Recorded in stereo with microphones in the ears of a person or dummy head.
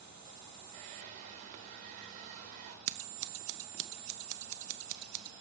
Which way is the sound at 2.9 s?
40° right (ahead or behind).